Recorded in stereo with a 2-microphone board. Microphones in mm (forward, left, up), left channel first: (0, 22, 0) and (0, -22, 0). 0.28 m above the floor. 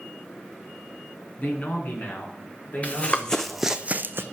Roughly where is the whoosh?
I don't hear a whoosh.